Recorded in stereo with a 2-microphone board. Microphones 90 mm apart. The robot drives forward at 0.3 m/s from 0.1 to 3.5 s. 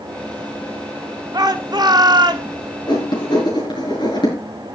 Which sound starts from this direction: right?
A shout, at 1.3 s.